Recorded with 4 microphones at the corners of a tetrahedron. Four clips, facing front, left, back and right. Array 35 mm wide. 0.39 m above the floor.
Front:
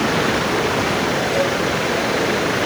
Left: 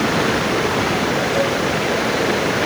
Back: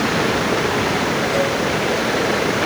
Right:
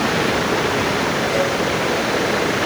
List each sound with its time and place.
Only background noise.